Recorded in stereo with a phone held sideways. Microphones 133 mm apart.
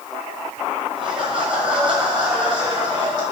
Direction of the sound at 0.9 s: 40° right (ahead or behind).